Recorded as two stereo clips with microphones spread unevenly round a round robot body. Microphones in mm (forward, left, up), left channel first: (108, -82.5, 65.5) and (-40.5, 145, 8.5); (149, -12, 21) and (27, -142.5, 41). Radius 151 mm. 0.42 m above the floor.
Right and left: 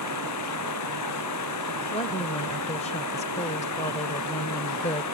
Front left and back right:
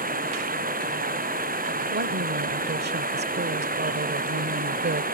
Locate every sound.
0.0 s running water: 95° right
1.9 s a woman speaking: 130° right